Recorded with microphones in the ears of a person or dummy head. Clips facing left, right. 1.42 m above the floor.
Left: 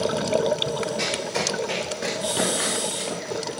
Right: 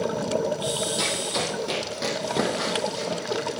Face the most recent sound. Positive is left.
turn(degrees=-60)  # may be behind; listen again after turning